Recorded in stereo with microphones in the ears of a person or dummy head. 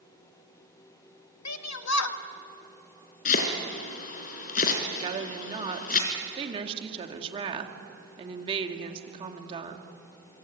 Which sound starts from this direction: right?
A woman speaking, at 5.0 s.